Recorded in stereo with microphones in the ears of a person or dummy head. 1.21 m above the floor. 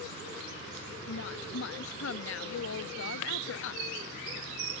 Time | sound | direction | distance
1.1 | a woman speaking | 70° left (ahead or behind) | ?